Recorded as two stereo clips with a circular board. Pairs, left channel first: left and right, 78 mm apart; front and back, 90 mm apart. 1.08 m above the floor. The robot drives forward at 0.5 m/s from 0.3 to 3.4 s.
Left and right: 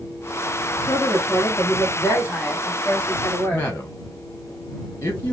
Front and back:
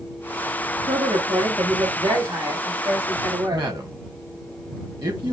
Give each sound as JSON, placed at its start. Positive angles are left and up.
{"t": 0.8, "sound": "a woman speaking", "azimuth_deg": 135, "distance_m": 0.9}
{"t": 3.5, "sound": "a man speaking", "azimuth_deg": 145, "distance_m": 1.4}